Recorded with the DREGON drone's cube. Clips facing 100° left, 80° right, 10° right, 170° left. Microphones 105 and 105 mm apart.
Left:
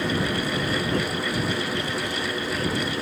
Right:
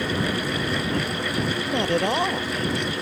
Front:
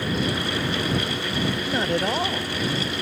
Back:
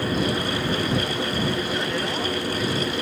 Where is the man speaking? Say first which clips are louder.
Right 6 dB, front 2 dB; 65° right.